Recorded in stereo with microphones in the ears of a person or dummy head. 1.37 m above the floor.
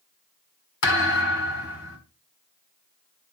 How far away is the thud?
About 3 m.